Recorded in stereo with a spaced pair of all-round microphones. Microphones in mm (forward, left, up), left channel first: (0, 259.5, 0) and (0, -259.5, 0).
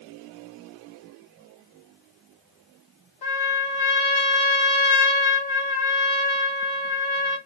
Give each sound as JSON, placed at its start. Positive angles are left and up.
{"t": 3.2, "sound": "a trumpet", "side_deg": 50, "distance_m": 0.8}